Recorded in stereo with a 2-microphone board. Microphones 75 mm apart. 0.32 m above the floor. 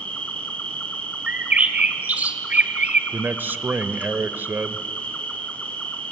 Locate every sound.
0.0 s an insect: 20° left (ahead or behind), 3 m
1.3 s a bird: 20° right (ahead or behind), 1.5 m
3.1 s a man speaking: 25° right (ahead or behind), 0.9 m